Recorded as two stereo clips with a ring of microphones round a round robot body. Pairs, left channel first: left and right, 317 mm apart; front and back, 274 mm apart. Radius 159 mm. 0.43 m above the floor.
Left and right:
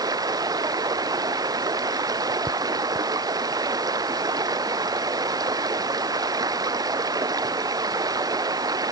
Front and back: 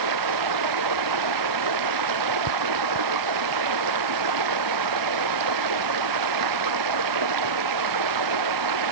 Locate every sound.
0.0 s running water: 170° right